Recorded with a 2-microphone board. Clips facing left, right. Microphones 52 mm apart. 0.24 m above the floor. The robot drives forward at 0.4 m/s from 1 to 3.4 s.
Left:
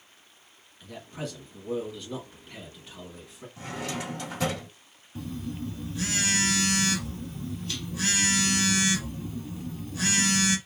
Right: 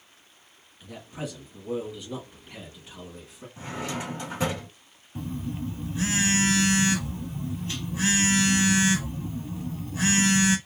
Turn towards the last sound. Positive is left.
turn(degrees=-30)  # may be behind; listen again after turning